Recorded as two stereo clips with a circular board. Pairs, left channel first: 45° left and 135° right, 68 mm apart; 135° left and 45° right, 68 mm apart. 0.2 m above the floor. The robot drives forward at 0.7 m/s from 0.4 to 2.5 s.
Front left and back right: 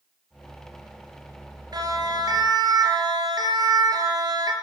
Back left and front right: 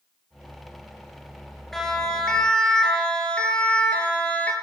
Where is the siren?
135° right, 6.5 m; by 4.5 s 155° right, 6.5 m.